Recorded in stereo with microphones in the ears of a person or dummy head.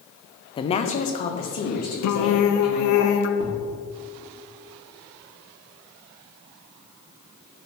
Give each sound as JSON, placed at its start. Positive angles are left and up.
{"t": 0.6, "sound": "a woman speaking", "side_deg": 25, "distance_m": 0.5}
{"t": 2.0, "sound": "singing", "side_deg": 75, "distance_m": 0.6}
{"t": 3.4, "sound": "a thud", "side_deg": -35, "distance_m": 1.3}